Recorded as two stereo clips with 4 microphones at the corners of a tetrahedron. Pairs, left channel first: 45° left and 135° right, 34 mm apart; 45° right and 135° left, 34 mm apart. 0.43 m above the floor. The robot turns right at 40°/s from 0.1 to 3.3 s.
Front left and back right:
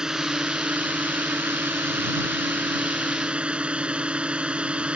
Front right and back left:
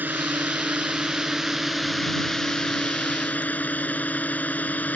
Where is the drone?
155° left; by 5.0 s 80° right.